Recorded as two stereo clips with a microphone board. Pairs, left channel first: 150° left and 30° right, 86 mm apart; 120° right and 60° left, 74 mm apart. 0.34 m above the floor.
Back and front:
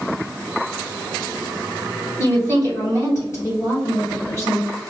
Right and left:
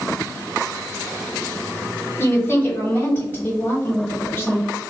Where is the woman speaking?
170° right, 1.9 m.